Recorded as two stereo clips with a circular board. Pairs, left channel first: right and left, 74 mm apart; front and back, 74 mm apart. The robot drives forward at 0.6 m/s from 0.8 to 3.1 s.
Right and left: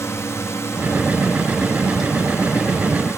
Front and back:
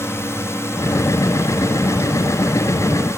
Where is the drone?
45° right.